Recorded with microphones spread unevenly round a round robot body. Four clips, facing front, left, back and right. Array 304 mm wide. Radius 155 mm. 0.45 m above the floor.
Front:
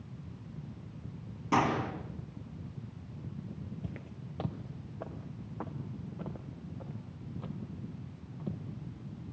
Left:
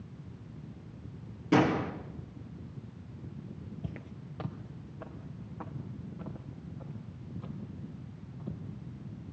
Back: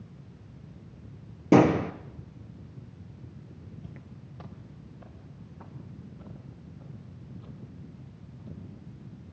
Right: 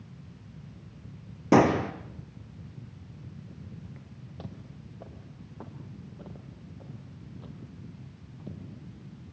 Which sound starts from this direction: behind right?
A gunshot, at 1.5 s.